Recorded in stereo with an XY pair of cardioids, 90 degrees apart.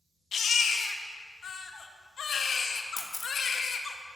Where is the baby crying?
55° left, 0.8 m.